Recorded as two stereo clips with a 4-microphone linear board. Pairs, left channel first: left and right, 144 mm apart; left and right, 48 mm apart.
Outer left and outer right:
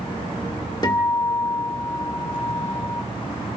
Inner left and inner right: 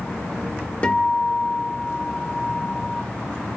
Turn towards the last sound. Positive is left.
turn(degrees=30)  # may be behind; listen again after turning